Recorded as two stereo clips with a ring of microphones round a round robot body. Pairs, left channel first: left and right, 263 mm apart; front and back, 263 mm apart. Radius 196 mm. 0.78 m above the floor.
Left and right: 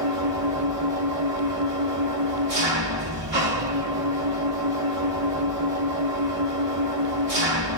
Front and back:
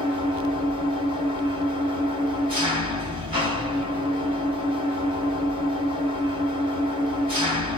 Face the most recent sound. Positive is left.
turn(degrees=-115)